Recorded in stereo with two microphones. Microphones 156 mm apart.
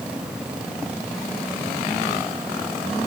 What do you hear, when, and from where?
Only background noise.